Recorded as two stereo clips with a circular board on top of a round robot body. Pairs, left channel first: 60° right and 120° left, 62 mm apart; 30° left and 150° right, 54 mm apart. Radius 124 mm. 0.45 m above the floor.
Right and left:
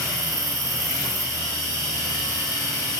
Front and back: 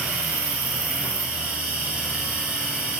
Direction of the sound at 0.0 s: 145° left.